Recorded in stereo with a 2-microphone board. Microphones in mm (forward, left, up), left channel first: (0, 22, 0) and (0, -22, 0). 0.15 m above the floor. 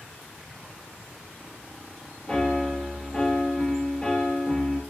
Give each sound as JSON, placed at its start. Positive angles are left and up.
{"t": 2.3, "sound": "a piano", "side_deg": 25, "distance_m": 1.1}